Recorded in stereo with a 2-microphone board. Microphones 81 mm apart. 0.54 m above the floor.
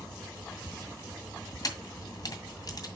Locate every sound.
1.6 s a camera shutter: 50° left (ahead or behind), 2 m